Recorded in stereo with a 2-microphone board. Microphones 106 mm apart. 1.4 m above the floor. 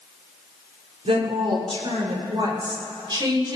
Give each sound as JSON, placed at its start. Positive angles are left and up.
{"t": 1.1, "sound": "a woman speaking", "side_deg": -75, "distance_m": 4.0}